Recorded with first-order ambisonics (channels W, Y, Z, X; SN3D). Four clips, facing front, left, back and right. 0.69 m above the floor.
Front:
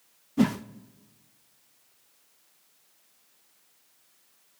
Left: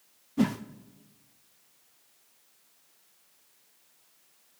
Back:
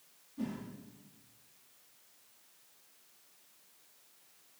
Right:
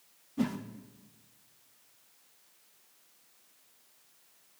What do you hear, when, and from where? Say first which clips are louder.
0.4 s a whoosh: left 5 dB, front 15 dB; 20° left, 0.5 m